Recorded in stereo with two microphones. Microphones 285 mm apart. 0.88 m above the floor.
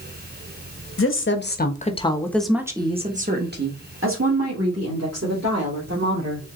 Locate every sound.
1.0 s a woman speaking: 50° left (ahead or behind), 1.1 m; by 6.5 s 65° right (ahead or behind), 2.5 m